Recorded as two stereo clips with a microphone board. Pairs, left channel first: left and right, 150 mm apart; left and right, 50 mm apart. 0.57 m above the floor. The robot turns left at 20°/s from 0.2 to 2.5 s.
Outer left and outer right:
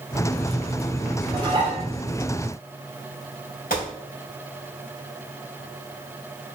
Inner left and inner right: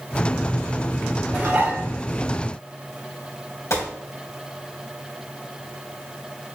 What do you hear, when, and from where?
1.3 s dishes clattering: 25° right (ahead or behind), 2.5 m; by 1.8 s 35° right (ahead or behind), 2.5 m
3.7 s a gunshot: 70° left (ahead or behind), 3 m